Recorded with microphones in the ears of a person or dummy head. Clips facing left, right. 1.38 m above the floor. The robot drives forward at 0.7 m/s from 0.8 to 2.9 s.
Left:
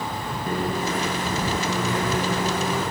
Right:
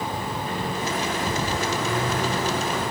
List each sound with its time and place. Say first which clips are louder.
0.5 s a microwave: left 5 dB; 35° left (ahead or behind), 0.7 m; by 2.8 s 10° left (ahead or behind), 1.9 m